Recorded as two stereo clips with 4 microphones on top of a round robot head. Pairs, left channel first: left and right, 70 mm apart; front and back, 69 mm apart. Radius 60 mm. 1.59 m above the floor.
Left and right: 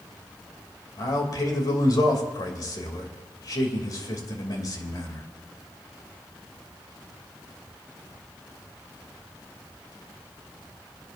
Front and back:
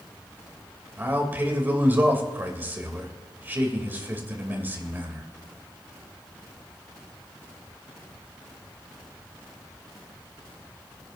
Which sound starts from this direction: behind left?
A man speaking, at 1.0 s.